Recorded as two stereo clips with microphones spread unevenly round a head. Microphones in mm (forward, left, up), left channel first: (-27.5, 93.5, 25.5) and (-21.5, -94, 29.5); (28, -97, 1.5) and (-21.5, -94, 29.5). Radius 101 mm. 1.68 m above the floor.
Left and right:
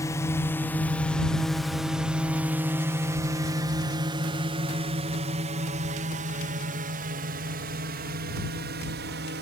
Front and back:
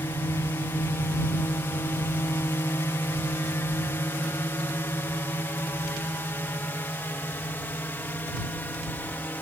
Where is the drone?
20° left; by 9.4 s 55° right.